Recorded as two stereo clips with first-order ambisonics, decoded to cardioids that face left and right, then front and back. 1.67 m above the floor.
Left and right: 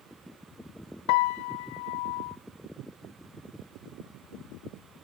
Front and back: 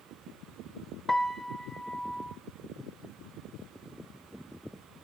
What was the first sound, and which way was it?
A piano, 90° left.